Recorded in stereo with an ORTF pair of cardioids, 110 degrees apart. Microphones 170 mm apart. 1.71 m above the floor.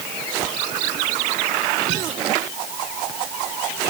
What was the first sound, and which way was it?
Only background noise.